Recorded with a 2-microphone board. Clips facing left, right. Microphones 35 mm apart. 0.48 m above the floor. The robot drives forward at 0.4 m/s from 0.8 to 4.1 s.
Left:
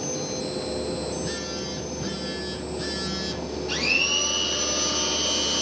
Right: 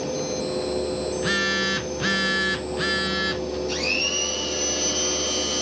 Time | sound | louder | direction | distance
1.1 | a phone buzzing | right 8 dB | 55° right (ahead or behind) | 0.6 m
3.7 | a blender | left 4 dB | 35° left (ahead or behind) | 4.5 m